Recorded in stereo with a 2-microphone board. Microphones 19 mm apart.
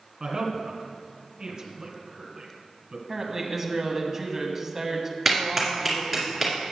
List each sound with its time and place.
0.2 s a woman speaking: 40° right (ahead or behind), 1.7 m
3.1 s a woman speaking: 20° right (ahead or behind), 1.2 m
5.2 s a clap: 10° right (ahead or behind), 2.5 m